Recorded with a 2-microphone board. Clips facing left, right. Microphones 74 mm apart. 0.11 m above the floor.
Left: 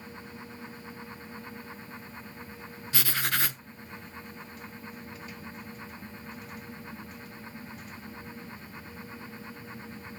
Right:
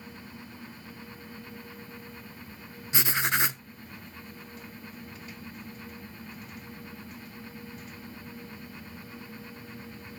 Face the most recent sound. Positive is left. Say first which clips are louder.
# right 3 dB
turn(degrees=-20)  # may be behind; listen again after turning